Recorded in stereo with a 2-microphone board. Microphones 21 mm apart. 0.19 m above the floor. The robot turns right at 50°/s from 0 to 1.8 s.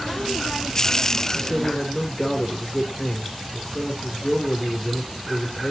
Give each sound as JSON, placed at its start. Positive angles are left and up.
{"t": 1.3, "sound": "a man speaking", "side_deg": -5, "distance_m": 2.0}